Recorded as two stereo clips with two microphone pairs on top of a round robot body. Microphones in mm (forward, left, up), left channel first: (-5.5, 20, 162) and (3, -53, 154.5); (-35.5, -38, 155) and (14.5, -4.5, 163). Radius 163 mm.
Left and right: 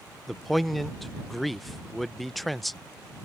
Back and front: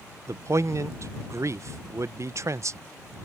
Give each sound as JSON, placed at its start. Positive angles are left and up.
{"t": 0.3, "sound": "a man speaking", "azimuth_deg": 0}